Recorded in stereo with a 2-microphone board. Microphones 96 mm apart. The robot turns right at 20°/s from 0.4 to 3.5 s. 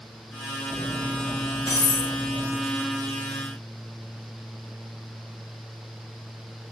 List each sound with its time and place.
0.7 s cutlery clinking: 50° left (ahead or behind), 1.8 m; by 2.6 s 80° left, 1.8 m